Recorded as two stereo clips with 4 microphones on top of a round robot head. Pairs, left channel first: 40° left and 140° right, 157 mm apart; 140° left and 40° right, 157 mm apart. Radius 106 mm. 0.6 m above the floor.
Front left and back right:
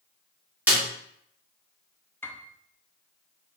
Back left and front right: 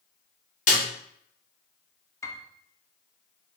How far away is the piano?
About 0.7 m.